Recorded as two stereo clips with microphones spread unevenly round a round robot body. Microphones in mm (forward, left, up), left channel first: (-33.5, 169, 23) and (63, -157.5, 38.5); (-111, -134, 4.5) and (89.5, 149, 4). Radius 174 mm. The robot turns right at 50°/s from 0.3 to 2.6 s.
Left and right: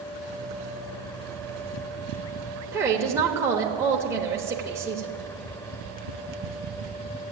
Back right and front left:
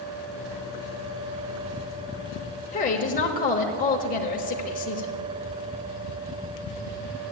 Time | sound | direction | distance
2.7 | a woman speaking | 150° right | 1.1 m